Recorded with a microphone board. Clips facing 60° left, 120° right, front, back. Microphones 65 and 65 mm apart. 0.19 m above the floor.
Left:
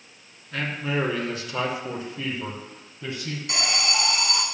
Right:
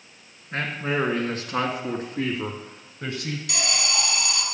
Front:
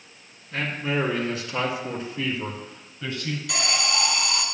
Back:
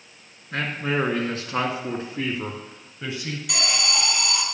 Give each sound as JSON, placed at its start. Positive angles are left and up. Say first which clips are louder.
{"t": 0.5, "sound": "a man speaking", "louder": "right 1 dB, back 1 dB", "azimuth_deg": -165, "distance_m": 2.5}
{"t": 3.5, "sound": "an alarm", "louder": "left 3 dB, even", "azimuth_deg": 100, "distance_m": 2.0}